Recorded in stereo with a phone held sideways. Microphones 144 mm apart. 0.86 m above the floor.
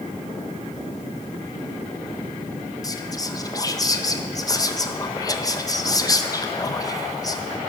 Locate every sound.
2.8 s whispering: 25° left (ahead or behind), 0.6 m